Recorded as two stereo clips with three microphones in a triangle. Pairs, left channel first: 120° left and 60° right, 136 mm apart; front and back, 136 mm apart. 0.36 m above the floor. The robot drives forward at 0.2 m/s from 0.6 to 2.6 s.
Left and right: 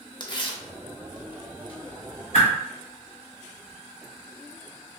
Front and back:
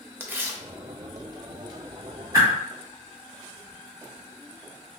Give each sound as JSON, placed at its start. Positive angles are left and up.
{"t": 0.2, "sound": "tearing paper", "azimuth_deg": 120, "distance_m": 0.5}
{"t": 2.3, "sound": "a whoosh", "azimuth_deg": 115, "distance_m": 1.9}